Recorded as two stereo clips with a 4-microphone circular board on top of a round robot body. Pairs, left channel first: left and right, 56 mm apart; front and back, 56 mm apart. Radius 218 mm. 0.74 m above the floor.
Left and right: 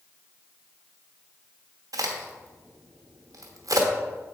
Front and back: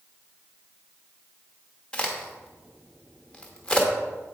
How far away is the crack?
About 1.0 m.